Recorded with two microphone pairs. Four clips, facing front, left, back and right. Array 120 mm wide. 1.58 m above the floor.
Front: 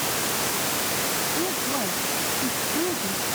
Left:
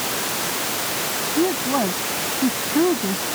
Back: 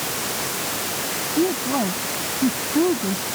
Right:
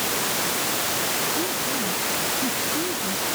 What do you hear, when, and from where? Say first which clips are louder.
1.4 s a woman speaking: left 7 dB, back 10 dB; 100° left